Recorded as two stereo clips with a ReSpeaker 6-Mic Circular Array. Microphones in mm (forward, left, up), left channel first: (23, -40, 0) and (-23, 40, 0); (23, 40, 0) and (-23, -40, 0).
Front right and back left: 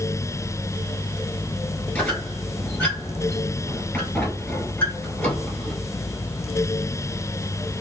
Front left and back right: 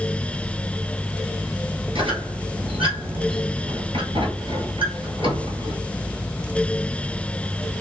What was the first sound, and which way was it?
A squeak, 135° right.